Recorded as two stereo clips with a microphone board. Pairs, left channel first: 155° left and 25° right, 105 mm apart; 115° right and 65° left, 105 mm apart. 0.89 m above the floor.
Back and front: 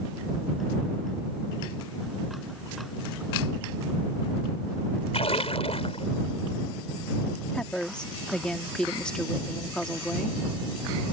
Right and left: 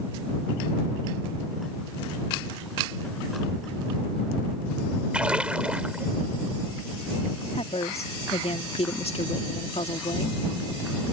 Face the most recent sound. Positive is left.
turn(degrees=-120)